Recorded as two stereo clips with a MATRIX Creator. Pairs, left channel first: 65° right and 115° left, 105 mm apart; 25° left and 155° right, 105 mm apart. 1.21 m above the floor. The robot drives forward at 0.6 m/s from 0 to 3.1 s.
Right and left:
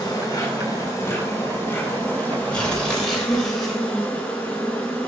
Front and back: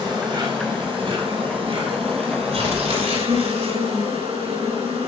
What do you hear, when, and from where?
0.0 s an insect: 120° right, 3 m; by 5.1 s 145° right, 4 m
2.5 s tearing paper: 150° right, 3 m